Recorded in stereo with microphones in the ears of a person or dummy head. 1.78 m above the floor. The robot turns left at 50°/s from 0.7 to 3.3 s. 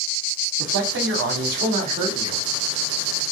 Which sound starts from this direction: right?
A man speaking, at 0.6 s.